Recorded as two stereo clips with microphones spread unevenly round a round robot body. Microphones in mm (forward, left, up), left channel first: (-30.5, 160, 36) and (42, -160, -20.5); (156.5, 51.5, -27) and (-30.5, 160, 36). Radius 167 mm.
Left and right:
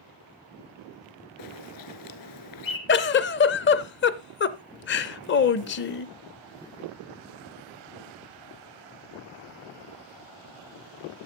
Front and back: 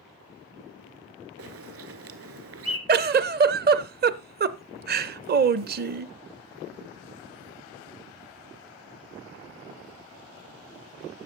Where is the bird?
135° left, 1.2 m.